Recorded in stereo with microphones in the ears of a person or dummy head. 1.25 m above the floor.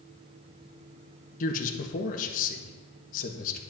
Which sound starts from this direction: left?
A man speaking, at 1.4 s.